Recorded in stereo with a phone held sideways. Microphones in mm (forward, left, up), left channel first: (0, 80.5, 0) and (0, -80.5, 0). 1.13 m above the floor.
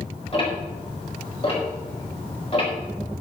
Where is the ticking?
40° left (ahead or behind), 5 m.